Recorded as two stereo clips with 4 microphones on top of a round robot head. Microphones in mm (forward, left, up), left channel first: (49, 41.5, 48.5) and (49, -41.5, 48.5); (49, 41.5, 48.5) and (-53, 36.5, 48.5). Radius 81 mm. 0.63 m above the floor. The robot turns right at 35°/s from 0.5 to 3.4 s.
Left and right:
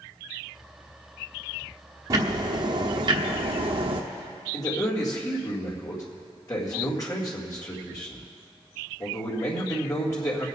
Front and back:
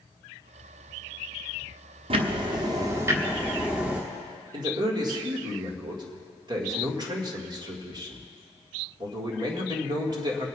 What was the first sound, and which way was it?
Ticking, 145° right.